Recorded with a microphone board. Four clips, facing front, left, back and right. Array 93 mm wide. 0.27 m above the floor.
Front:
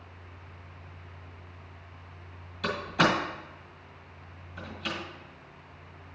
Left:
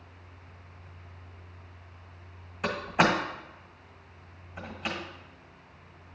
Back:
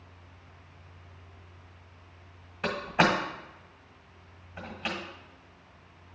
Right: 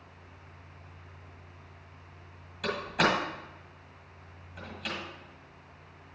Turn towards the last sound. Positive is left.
turn(degrees=145)